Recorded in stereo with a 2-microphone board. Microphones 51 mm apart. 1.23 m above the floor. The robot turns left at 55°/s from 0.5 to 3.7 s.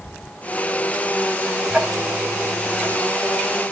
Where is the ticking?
25° right (ahead or behind), 4.5 m; by 3.0 s 45° left (ahead or behind), 4.5 m.